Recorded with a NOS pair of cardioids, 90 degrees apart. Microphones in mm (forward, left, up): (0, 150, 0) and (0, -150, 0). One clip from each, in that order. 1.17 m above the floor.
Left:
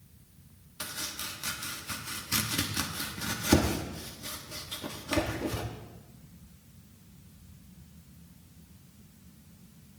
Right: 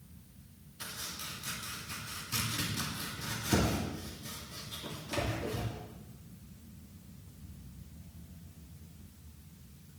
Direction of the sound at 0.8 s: 65° left.